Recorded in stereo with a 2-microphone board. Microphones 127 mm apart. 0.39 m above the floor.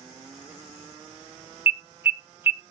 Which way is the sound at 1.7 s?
15° right (ahead or behind).